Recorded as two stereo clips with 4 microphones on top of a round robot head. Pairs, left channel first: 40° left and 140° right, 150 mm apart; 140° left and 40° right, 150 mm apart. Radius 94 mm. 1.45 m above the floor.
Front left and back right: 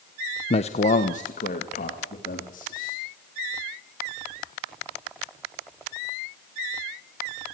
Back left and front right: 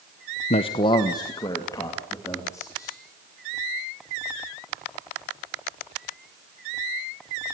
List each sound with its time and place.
0.5 s a man speaking: 90° left, 1.0 m; by 3.0 s 70° left, 4.5 m